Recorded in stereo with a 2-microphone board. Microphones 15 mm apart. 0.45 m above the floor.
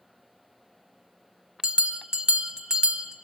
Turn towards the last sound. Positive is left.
turn(degrees=-70)  # may be behind; listen again after turning